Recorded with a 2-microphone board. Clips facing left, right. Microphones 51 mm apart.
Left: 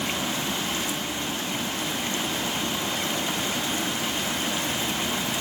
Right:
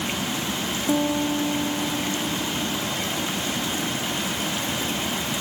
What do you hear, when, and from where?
0.9 s a piano: 85° right